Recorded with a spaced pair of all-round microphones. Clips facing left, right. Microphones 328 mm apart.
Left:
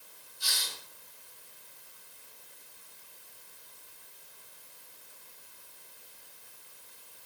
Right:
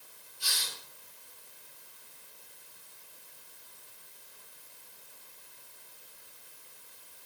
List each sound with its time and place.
0.4 s a hiss: 40° right (ahead or behind), 2 m